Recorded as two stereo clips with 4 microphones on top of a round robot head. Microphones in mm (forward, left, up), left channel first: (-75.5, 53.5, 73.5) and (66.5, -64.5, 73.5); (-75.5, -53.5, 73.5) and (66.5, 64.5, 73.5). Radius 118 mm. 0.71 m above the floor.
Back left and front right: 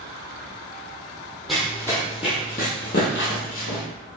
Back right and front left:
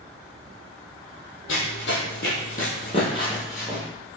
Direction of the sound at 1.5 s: 130° right.